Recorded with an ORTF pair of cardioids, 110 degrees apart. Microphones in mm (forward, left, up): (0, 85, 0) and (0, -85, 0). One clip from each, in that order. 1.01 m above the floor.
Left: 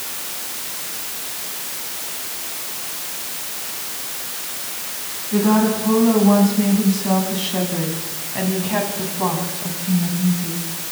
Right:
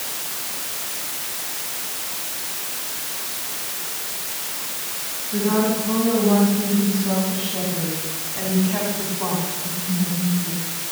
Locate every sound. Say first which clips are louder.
5.3 s a woman speaking: left 3 dB; 55° left, 8.5 m; by 10.7 s 35° left, 6.5 m